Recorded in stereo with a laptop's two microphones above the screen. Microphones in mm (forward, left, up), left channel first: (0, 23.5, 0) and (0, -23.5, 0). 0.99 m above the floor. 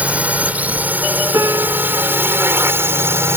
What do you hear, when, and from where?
0.0 s a drone: 30° right (ahead or behind); by 3.4 s 55° right (ahead or behind)
1.3 s a piano: 80° right